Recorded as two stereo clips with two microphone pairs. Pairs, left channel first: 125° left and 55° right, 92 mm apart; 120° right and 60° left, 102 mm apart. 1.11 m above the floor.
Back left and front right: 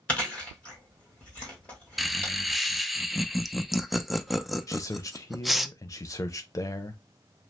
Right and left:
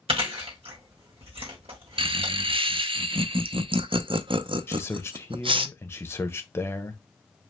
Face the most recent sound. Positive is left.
turn(degrees=175)